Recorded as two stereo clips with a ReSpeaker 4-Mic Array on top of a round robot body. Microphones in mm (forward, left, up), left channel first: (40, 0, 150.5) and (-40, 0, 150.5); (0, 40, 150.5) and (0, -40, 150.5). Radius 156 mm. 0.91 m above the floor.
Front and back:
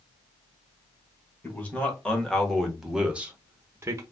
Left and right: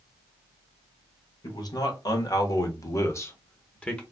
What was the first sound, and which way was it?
A man speaking, 70° left.